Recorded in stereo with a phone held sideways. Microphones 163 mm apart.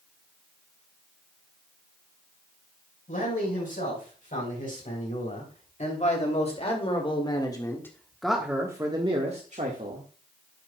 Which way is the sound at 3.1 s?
60° left (ahead or behind).